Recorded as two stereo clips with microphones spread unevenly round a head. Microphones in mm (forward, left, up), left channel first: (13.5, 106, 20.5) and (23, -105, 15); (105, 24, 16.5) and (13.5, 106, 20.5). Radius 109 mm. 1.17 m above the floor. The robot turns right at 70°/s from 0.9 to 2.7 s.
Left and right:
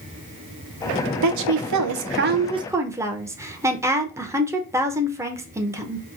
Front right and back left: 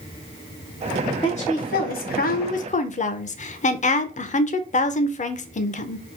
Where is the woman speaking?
115° right, 0.6 m; by 6.0 s 10° right, 0.6 m.